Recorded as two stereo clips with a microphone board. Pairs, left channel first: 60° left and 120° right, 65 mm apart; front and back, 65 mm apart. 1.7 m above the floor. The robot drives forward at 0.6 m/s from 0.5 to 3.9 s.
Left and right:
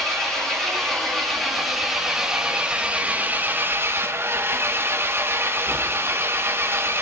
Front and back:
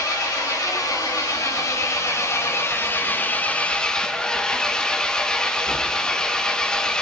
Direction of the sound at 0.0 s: 25° right.